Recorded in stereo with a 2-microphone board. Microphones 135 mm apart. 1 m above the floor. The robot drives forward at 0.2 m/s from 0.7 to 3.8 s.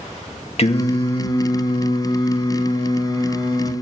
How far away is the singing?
About 1.4 m.